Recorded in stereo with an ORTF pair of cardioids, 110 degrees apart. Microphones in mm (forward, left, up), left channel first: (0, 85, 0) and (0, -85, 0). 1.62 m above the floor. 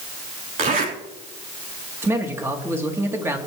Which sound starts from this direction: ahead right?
A zipper, at 0.6 s.